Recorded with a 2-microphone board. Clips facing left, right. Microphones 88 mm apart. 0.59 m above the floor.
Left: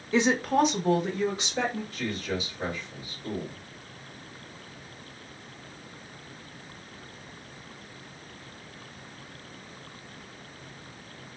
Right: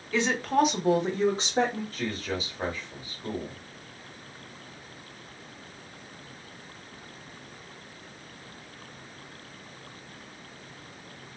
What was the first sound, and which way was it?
A woman speaking, 20° left (ahead or behind).